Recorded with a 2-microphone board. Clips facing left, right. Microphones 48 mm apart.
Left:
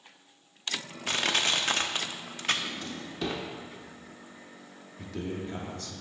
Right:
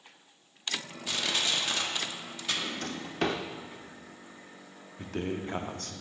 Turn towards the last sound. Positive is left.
turn(degrees=-50)  # may be behind; listen again after turning